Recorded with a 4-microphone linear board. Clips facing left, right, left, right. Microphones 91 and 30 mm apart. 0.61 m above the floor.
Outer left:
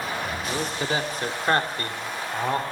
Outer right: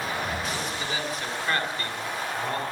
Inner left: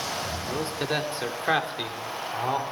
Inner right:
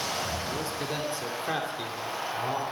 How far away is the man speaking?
About 1.8 m.